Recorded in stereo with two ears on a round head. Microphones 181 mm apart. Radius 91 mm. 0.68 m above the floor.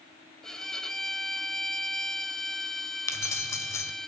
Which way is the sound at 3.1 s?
15° left (ahead or behind).